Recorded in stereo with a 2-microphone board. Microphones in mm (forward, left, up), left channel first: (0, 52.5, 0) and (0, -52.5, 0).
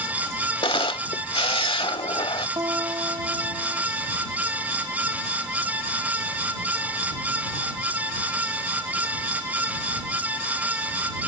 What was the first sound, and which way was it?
A camera shutter, 60° left (ahead or behind).